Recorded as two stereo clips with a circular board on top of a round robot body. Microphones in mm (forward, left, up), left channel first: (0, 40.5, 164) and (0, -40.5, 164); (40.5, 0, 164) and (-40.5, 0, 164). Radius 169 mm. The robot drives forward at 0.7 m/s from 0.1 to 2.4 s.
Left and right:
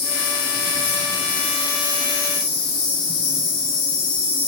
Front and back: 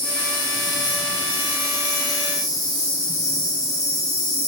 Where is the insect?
80° left, 2 m; by 4.5 s 120° left, 2.5 m.